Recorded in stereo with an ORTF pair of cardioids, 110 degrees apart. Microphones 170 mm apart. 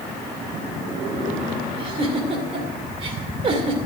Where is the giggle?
35° right, 2.5 m.